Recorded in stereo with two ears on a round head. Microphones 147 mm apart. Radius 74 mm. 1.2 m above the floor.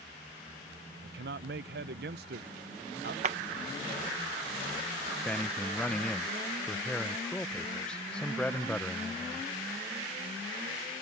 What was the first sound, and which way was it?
A man speaking, 65° right (ahead or behind).